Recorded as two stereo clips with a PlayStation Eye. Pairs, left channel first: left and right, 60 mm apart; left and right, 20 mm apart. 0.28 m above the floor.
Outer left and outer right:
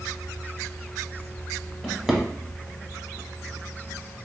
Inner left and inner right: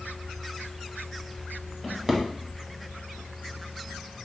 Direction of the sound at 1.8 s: 5° right (ahead or behind).